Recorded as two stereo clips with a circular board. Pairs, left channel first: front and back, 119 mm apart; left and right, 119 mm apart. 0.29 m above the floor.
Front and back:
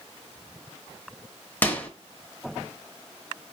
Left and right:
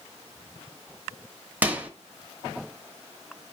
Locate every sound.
1.6 s a microwave: 40° right, 0.7 m